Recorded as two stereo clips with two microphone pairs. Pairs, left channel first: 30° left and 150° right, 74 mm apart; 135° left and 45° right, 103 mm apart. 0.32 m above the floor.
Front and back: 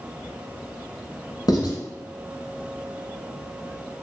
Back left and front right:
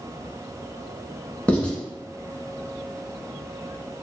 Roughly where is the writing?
Ahead left.